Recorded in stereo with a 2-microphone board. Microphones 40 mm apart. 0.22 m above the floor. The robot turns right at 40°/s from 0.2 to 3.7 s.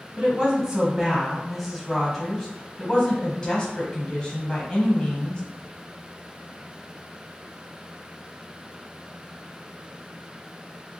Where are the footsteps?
No footsteps in this recording.